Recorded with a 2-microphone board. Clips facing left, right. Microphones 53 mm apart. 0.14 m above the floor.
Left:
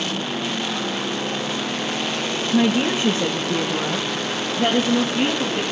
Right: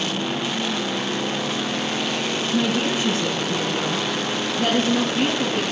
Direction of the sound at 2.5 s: 65° left (ahead or behind).